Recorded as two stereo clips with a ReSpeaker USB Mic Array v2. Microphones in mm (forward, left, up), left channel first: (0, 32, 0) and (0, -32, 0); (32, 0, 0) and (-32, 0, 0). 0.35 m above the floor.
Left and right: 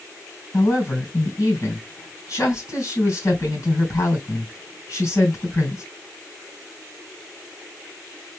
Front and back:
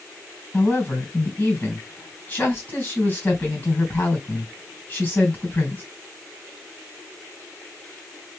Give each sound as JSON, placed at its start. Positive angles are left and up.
{"t": 0.5, "sound": "a woman speaking", "azimuth_deg": 60, "distance_m": 3.5}